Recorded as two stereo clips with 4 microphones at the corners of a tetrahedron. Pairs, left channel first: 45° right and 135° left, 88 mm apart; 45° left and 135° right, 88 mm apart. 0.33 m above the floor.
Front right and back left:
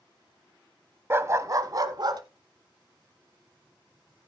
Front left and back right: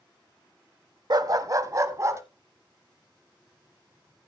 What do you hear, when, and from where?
1.1 s a dog barking: 165° right, 0.6 m; by 2.2 s 170° left, 1.2 m